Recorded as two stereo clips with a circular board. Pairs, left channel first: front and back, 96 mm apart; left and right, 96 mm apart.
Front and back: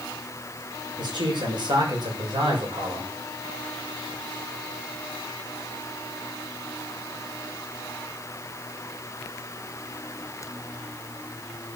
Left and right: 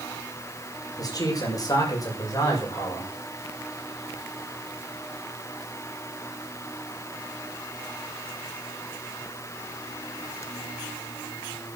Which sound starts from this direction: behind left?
A man speaking, at 1.0 s.